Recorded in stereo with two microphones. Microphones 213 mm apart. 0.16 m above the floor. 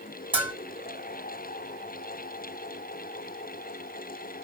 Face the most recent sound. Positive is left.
turn(degrees=-10)  # may be behind; listen again after turning